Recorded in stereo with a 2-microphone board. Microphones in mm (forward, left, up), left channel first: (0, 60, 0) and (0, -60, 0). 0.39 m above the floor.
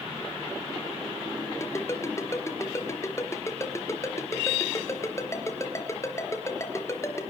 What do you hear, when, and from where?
1.6 s a ringtone: 20° left (ahead or behind), 3.5 m